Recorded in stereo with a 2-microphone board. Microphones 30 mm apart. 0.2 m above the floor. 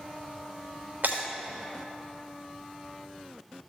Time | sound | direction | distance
1.0 | breaking glass | 90° right | 4 m